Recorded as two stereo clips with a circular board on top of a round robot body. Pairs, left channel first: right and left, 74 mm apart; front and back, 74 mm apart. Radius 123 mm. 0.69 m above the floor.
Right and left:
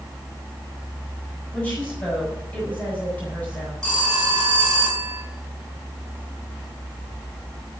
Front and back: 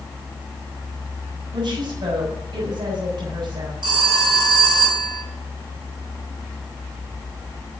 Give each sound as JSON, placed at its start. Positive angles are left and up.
{"t": 1.5, "sound": "a woman speaking", "azimuth_deg": -165, "distance_m": 6.0}
{"t": 3.8, "sound": "a phone ringing", "azimuth_deg": -170, "distance_m": 5.5}